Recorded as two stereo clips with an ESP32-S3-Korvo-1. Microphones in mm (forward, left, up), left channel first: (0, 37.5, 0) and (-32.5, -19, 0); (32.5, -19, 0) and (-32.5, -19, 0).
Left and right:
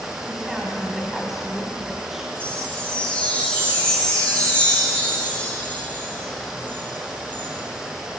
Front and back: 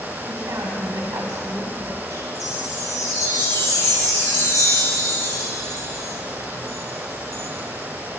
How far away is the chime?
About 3.5 m.